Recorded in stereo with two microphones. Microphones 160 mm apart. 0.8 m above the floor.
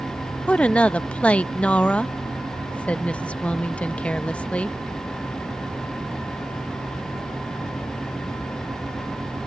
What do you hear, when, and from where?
0.5 s a woman speaking: 10° left (ahead or behind)